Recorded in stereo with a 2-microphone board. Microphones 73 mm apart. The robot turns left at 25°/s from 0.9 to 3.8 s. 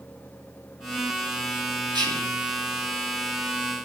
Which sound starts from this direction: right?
Whispering, at 1.9 s.